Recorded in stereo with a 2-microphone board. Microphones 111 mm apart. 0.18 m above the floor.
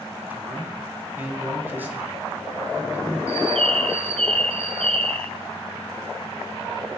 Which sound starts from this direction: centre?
A man speaking, at 0.3 s.